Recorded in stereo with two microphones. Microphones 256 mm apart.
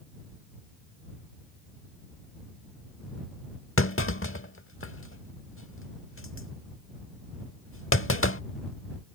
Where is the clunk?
55° left (ahead or behind).